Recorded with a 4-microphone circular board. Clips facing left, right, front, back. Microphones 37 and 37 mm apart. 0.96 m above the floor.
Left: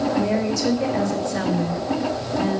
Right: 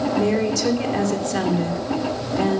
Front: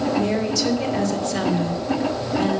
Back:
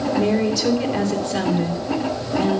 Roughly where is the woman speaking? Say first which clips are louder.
Right 1 dB, back 2 dB; right.